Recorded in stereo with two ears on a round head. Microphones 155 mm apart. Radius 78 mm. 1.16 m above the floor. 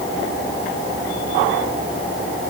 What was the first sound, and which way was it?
Only background noise.